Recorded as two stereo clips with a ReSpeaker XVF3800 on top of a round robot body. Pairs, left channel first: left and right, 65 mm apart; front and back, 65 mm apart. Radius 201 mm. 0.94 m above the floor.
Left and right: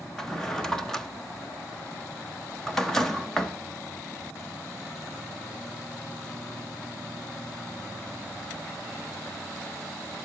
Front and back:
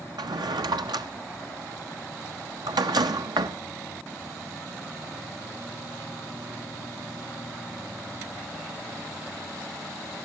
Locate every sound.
0.2 s a drawer: 175° left, 0.7 m